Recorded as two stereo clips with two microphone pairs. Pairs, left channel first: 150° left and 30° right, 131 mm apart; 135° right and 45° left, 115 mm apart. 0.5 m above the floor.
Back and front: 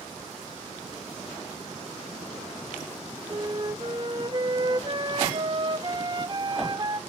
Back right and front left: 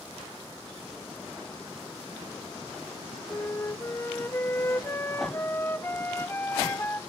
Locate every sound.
3.3 s a flute: 70° right, 0.7 m